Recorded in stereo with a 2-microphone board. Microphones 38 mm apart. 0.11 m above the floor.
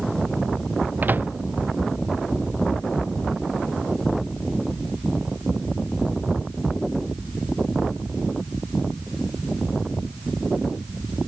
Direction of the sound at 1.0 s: 65° right (ahead or behind).